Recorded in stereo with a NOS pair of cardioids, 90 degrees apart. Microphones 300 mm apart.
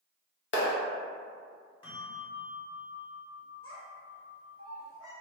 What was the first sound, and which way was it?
A clap, 40° left.